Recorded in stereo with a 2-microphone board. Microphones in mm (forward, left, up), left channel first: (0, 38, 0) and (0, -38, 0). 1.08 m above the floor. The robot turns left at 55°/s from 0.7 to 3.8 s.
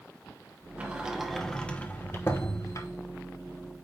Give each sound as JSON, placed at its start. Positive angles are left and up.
{"t": 0.8, "sound": "a sliding door", "side_deg": -20, "distance_m": 0.9}